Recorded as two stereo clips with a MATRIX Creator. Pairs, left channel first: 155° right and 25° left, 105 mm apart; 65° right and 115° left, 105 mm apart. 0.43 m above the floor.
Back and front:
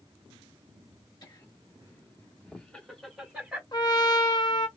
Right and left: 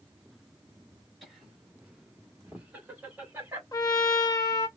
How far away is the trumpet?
About 0.8 m.